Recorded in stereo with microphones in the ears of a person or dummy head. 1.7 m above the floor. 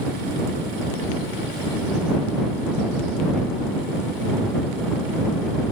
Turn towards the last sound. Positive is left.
No sound to turn to.